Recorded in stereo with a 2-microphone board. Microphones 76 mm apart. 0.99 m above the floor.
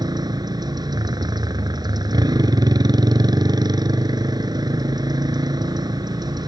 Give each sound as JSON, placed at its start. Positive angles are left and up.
{"t": 0.0, "sound": "a motorcycle", "side_deg": -65}